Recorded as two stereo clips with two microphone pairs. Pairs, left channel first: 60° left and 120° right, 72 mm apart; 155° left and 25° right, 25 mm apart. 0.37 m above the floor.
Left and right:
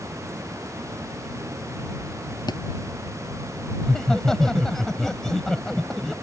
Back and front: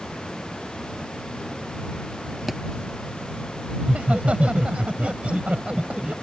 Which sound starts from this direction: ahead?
Laughter, at 3.8 s.